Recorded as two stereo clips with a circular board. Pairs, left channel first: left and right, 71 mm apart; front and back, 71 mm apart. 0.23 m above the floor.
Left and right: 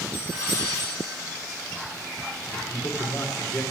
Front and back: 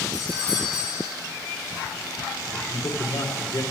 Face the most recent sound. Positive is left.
turn(degrees=40)